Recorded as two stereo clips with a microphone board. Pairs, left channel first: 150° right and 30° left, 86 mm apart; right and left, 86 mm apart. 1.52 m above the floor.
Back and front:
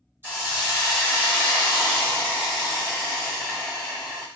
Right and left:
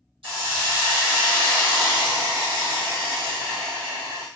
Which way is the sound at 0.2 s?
95° left.